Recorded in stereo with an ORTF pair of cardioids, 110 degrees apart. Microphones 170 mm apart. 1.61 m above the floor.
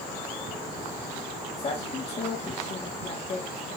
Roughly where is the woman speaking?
Ahead left.